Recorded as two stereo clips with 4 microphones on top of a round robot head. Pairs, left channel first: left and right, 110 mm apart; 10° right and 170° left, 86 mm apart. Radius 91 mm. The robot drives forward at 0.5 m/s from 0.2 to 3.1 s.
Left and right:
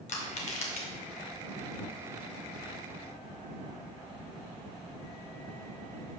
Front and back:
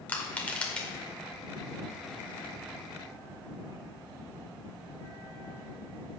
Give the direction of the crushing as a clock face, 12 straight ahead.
10 o'clock.